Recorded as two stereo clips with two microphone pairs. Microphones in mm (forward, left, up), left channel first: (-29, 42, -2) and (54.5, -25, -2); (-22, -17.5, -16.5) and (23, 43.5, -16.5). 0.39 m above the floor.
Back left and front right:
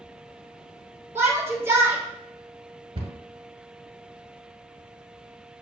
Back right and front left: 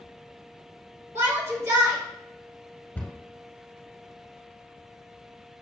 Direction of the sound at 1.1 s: 15° left.